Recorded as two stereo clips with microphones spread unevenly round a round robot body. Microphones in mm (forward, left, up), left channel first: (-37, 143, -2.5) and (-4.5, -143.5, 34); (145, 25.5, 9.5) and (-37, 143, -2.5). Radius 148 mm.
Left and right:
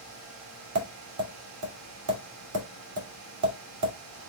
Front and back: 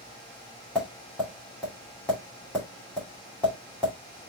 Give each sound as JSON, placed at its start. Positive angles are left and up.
{"t": 0.8, "sound": "tapping", "azimuth_deg": -120, "distance_m": 2.0}